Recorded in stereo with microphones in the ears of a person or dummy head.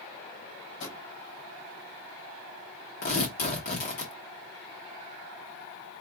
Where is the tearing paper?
50° left (ahead or behind), 1.4 m.